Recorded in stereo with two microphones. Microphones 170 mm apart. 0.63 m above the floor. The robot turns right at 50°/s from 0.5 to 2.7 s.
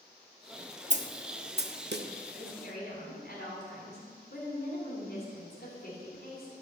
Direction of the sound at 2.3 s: 60° left (ahead or behind).